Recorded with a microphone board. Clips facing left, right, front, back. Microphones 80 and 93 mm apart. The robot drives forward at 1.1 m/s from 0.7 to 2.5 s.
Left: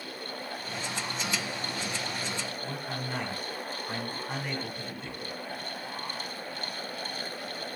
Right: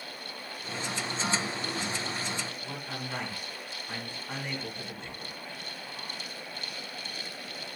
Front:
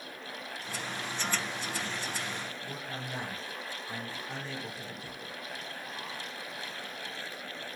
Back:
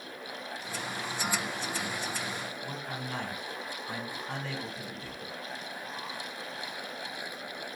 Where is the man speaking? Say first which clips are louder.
Left 3 dB, back 2 dB; 175° left, 3 m.